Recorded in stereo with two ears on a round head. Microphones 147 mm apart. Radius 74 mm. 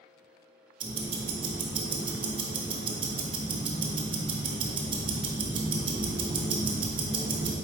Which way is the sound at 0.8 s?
30° right (ahead or behind).